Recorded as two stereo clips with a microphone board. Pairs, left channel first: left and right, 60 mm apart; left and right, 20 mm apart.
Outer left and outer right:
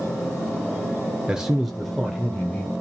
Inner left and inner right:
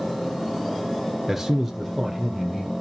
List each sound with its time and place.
1.3 s a man speaking: 15° right (ahead or behind), 0.9 m; by 2.7 s 20° left (ahead or behind), 1.6 m